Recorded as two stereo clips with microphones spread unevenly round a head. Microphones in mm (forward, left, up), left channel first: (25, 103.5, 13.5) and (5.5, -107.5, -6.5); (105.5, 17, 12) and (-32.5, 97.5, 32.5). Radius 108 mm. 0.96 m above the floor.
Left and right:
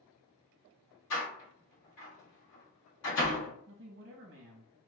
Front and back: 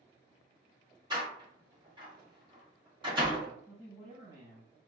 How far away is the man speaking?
About 0.7 m.